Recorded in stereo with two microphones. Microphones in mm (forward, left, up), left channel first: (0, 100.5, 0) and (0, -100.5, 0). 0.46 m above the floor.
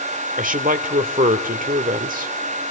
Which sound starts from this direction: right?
A man speaking, at 0.4 s.